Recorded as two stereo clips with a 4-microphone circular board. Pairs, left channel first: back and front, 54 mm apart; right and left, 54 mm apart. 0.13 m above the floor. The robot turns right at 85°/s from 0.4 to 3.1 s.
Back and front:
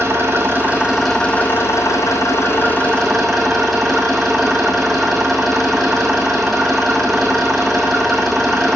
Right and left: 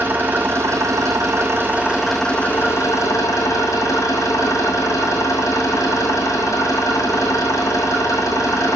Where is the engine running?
35° left, 3.5 m; by 8.8 s 95° right, 3.5 m.